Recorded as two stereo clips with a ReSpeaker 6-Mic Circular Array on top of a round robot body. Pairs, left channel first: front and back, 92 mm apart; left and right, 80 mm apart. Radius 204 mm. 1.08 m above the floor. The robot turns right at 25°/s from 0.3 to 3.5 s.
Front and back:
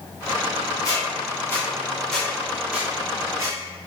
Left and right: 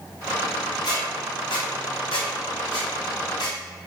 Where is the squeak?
55° left, 0.9 m; by 3.6 s 120° left, 0.9 m.